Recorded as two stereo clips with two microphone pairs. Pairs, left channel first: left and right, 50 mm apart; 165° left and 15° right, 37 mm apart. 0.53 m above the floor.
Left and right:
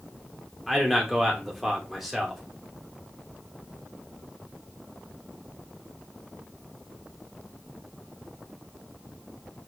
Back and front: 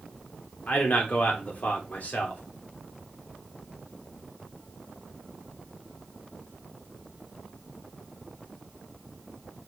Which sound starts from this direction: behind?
A man speaking, at 0.7 s.